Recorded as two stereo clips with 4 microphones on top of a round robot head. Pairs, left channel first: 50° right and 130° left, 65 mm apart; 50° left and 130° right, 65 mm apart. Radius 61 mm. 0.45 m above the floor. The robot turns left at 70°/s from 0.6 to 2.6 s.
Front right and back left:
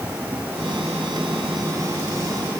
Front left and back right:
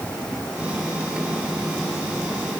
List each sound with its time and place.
Only background noise.